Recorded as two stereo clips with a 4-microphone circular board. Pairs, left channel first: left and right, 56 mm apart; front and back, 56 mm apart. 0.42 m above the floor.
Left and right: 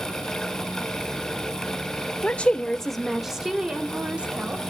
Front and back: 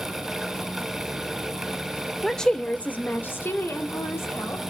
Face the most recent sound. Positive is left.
turn(degrees=-25)